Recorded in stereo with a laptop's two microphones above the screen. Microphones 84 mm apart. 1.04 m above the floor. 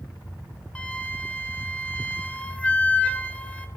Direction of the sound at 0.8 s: 15° left (ahead or behind).